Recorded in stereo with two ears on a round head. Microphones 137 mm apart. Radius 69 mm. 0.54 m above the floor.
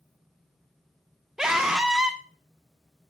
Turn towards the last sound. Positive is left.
turn(degrees=-5)  # may be behind; listen again after turning